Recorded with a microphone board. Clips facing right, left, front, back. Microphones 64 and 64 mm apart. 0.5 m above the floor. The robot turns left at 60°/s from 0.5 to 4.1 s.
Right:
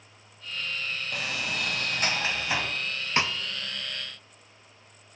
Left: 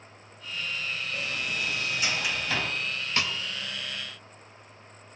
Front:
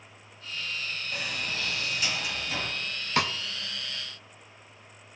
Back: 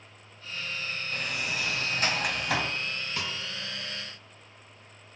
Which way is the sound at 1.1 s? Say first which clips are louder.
Right 2 dB, back 2 dB; 80° right.